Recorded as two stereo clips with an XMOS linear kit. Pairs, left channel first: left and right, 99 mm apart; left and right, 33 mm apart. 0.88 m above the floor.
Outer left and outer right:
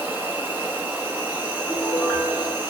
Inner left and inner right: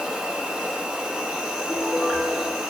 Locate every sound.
0.0 s an insect: 20° right (ahead or behind), 1.0 m
1.7 s a piano: 10° left (ahead or behind), 2.5 m